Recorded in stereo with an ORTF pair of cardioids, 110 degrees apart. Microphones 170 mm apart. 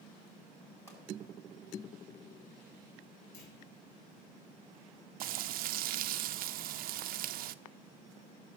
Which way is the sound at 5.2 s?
60° right.